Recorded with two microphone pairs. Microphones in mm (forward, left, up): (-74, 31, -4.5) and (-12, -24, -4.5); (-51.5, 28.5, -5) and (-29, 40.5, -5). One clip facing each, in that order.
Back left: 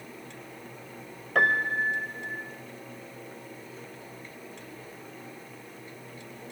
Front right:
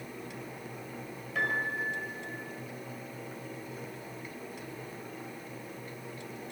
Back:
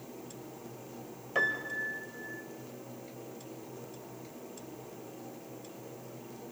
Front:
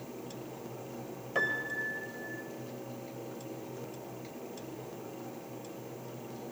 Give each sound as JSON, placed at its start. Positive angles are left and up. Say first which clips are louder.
{"t": 1.4, "sound": "a piano", "louder": "back left 7 dB, back 1 dB", "azimuth_deg": 125, "distance_m": 2.0}